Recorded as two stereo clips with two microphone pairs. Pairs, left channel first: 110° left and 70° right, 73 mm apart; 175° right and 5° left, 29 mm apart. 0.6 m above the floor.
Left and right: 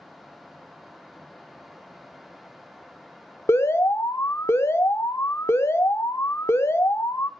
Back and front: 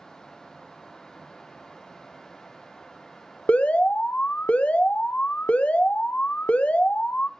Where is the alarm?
155° left, 0.7 m.